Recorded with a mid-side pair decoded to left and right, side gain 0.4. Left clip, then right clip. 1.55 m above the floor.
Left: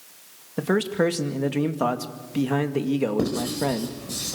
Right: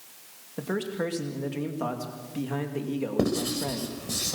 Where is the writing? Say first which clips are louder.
Left 2 dB; 25° right, 5.5 m.